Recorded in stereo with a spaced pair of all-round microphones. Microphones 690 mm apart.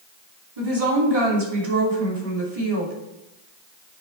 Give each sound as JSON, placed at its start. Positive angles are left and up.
{"t": 0.6, "sound": "a woman speaking", "side_deg": -55, "distance_m": 3.0}